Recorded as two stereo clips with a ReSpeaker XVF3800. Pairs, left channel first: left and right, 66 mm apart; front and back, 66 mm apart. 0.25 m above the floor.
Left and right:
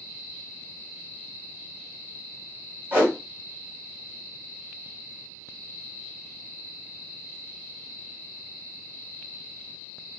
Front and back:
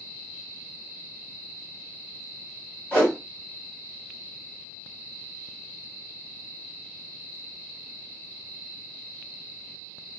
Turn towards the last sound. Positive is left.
turn(degrees=-55)